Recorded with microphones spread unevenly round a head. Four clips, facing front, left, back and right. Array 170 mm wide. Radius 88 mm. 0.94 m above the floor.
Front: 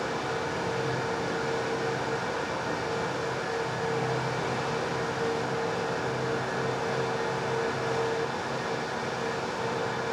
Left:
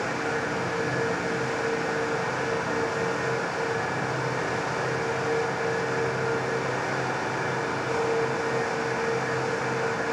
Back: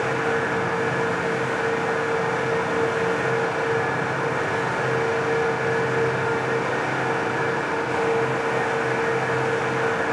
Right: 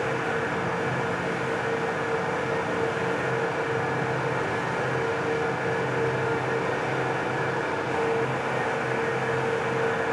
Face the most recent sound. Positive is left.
No sound to turn to.